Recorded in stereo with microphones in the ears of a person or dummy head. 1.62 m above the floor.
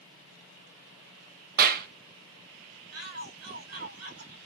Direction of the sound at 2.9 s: 80° right.